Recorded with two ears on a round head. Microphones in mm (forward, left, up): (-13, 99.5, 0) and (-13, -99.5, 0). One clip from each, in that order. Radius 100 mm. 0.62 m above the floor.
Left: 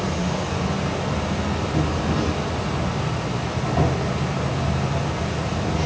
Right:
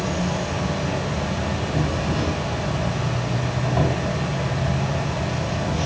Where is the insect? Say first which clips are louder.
Even; 25° right (ahead or behind), 3 m.